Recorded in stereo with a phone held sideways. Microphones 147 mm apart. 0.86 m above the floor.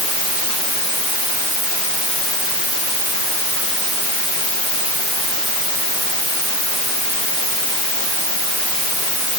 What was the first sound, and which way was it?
Only background noise.